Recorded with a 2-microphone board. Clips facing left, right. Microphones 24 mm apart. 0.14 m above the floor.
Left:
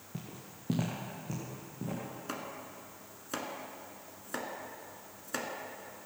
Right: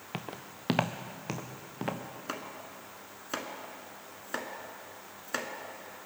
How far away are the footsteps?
About 0.8 m.